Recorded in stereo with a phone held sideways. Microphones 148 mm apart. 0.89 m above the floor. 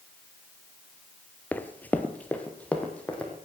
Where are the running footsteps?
10° left (ahead or behind), 0.9 m; by 3.3 s 5° left (ahead or behind), 3 m.